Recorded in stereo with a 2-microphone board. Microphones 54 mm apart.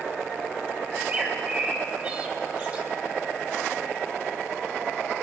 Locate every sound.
0.9 s a bird: 30° right (ahead or behind), 4 m